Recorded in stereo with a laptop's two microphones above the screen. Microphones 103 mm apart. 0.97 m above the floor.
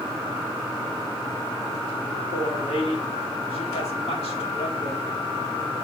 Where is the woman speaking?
80° left, 1.8 m.